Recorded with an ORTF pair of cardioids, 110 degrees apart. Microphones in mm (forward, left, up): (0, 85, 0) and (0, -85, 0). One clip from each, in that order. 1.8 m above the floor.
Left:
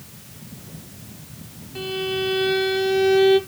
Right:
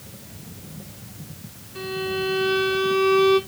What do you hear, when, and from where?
1.8 s a violin: 30° left, 3 m